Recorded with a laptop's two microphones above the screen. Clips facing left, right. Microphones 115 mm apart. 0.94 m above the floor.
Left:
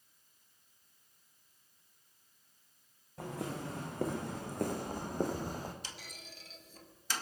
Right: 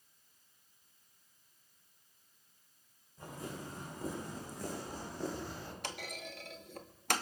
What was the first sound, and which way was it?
Footsteps, 70° left (ahead or behind).